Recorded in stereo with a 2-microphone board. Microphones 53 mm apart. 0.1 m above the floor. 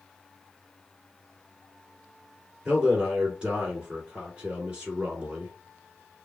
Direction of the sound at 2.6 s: 15° right (ahead or behind).